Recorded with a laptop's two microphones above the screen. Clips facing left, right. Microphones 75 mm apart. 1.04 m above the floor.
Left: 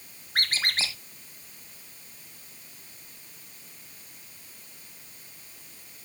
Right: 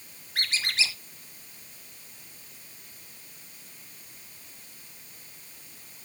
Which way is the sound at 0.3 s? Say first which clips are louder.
Left 1 dB; 45° left (ahead or behind).